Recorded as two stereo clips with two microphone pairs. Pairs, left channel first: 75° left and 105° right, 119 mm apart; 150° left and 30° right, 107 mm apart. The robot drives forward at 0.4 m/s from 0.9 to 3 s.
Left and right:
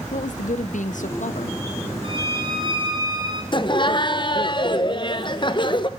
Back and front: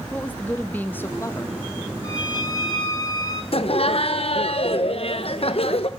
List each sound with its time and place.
0.1 s a woman speaking: 75° left, 0.7 m; by 1.6 s 95° left, 0.7 m
2.0 s a violin: 155° right, 1.3 m; by 3.4 s 160° right, 1.7 m
3.5 s laughter: 120° left, 0.6 m